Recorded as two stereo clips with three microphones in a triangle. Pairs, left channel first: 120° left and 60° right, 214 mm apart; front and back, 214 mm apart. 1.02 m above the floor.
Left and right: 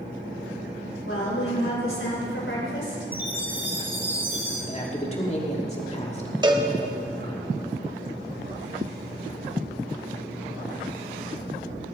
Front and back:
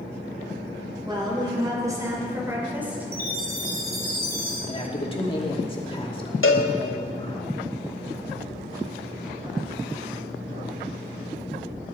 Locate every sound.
1.1 s a woman speaking: 110° left, 4 m; by 3.1 s 95° left, 4 m
3.1 s a chime: 140° right, 3.5 m
4.7 s a man speaking: 65° left, 2.5 m
6.4 s a cowbell: 10° left, 1.1 m